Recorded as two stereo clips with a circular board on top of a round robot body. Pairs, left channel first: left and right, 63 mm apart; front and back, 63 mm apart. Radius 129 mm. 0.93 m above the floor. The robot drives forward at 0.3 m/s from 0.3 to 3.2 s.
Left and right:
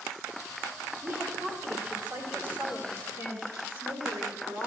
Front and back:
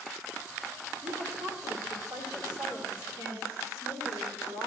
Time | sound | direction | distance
1.0 | a woman speaking | 145° right | 2 m